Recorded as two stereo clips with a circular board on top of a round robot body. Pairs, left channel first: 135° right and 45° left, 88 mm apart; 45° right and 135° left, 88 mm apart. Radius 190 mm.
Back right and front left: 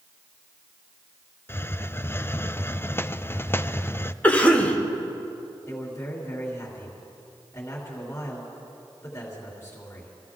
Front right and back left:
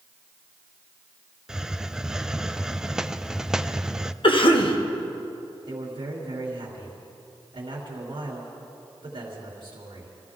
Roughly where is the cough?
Ahead right.